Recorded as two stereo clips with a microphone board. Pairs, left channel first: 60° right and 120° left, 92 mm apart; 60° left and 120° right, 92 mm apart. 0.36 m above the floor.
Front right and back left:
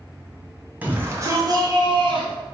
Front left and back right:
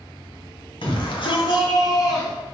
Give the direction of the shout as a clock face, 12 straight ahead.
10 o'clock.